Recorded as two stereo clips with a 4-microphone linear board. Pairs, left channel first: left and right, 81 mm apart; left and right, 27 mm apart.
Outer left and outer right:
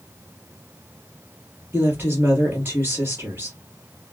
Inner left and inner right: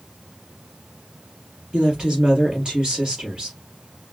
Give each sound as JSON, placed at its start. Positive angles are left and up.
{"t": 1.7, "sound": "a woman speaking", "side_deg": -30, "distance_m": 3.0}